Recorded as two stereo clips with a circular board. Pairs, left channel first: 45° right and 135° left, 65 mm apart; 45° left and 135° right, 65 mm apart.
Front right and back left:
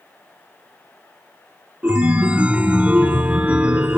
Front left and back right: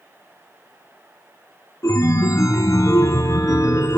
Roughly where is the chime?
Left.